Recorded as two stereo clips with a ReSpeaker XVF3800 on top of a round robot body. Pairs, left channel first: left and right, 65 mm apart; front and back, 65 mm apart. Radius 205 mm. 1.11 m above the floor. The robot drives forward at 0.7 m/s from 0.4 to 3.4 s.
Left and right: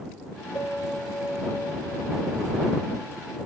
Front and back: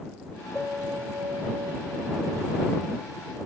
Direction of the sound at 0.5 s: 95° left.